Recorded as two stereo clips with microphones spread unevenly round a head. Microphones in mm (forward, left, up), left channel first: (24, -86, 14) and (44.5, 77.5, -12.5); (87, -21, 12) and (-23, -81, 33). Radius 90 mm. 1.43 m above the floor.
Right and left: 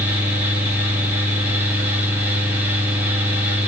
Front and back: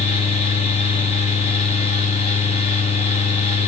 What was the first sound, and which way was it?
A fan, 10° left.